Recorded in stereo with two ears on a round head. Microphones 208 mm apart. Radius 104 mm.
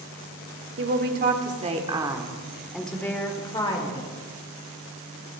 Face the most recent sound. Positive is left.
turn(degrees=25)  # may be behind; listen again after turning